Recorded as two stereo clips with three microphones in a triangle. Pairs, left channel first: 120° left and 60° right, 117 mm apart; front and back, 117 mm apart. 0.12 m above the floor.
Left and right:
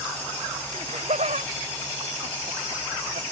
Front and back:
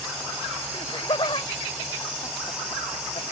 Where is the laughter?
50° right; by 3.2 s 45° right.